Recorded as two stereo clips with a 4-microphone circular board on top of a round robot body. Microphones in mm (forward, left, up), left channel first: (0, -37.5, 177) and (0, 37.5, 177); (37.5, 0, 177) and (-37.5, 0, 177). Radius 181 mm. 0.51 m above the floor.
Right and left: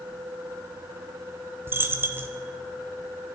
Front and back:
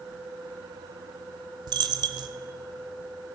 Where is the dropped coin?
155° left, 0.6 m.